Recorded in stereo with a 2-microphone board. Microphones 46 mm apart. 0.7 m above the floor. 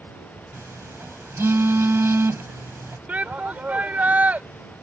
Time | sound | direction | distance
0.5 | a phone buzzing | 70° right (ahead or behind) | ?
3.1 | a shout | 40° right (ahead or behind) | ?